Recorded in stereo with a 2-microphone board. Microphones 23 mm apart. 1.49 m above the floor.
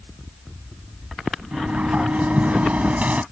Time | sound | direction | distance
1.5 | a sliding door | 85° right | ?